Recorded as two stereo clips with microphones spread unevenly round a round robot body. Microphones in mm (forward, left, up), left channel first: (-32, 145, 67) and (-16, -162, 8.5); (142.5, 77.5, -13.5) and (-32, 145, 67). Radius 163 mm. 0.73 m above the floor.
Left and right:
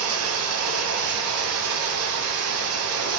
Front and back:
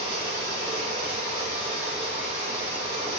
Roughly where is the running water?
Behind right.